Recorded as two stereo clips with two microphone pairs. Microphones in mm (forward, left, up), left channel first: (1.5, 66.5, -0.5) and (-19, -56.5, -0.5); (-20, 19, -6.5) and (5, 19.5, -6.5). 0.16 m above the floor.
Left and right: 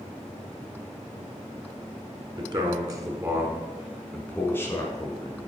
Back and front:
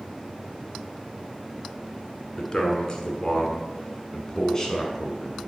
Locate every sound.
2.4 s a man speaking: 135° right, 1.5 m; by 5.5 s 105° left, 1.4 m